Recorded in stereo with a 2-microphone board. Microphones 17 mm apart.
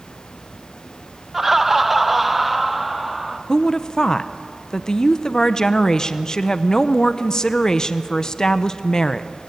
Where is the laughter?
15° right (ahead or behind), 0.8 m; by 3.4 s 5° right (ahead or behind), 2.5 m.